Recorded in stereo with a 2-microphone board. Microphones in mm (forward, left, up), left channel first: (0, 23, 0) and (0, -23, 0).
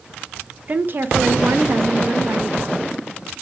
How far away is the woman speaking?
About 0.7 m.